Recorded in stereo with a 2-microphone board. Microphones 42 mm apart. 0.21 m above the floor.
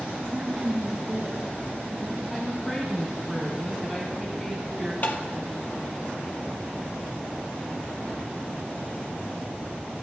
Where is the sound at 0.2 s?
25° right (ahead or behind), 2.5 m.